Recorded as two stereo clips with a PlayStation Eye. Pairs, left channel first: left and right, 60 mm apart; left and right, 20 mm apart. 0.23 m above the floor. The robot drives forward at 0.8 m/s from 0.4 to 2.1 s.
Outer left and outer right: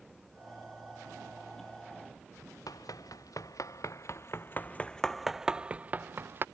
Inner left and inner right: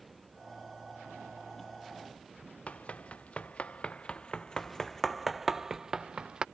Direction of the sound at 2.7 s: 80° left.